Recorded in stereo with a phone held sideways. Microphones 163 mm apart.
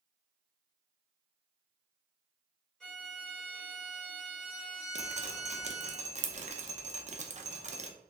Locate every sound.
2.8 s a violin: 5° left (ahead or behind), 1.8 m
5.0 s dripping: 45° right (ahead or behind), 0.5 m